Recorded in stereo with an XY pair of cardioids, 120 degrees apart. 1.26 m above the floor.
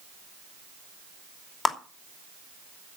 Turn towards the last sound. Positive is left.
turn(degrees=30)